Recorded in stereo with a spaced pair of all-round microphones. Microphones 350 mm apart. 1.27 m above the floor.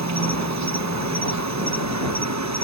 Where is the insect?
50° right (ahead or behind).